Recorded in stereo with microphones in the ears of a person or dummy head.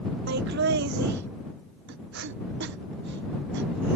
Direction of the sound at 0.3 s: 70° right (ahead or behind).